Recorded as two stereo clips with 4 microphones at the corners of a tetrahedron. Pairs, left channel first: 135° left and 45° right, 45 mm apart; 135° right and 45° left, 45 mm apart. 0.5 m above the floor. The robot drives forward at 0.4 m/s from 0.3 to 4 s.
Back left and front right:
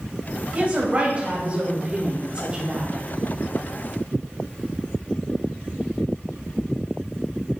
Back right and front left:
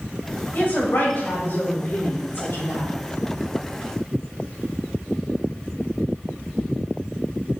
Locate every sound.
0.5 s a woman speaking: 95° right, 3 m; by 2.9 s 115° right, 3.5 m